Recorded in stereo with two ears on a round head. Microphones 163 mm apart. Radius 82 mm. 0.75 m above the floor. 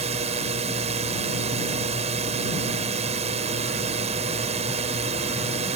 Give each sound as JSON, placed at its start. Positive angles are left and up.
{"t": 0.0, "sound": "a drone", "side_deg": -35}